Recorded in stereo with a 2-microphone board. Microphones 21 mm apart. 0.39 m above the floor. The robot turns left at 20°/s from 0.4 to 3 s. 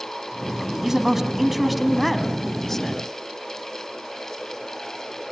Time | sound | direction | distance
0.8 | a man speaking | 160° right | 2.5 m